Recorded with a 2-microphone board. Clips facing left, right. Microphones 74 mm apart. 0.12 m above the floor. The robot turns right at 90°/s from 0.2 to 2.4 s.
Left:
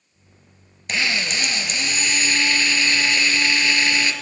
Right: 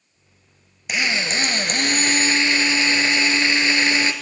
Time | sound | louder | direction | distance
0.9 | a drill | right 1 dB | 170° right | 2.5 m